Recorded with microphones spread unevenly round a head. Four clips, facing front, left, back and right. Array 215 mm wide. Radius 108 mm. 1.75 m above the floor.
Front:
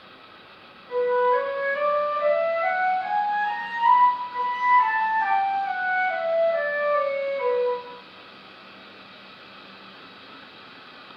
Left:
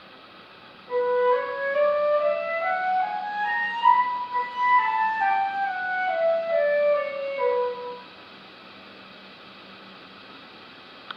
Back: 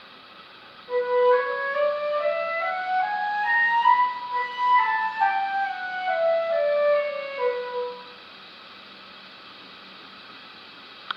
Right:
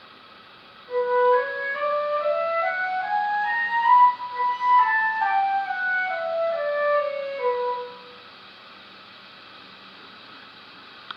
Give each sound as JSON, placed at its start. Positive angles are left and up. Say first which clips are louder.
{"t": 0.9, "sound": "a flute", "louder": "right 2 dB, back 1 dB", "azimuth_deg": 140, "distance_m": 1.5}